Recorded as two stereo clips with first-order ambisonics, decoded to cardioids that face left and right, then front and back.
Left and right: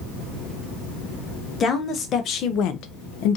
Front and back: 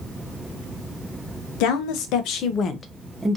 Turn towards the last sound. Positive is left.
turn(degrees=100)